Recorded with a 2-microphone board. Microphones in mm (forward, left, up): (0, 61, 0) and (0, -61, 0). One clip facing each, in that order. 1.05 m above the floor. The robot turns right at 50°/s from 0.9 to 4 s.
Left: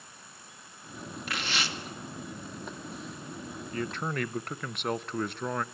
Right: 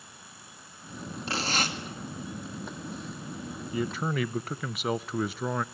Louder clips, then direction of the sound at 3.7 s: Right 3 dB; 10° right (ahead or behind).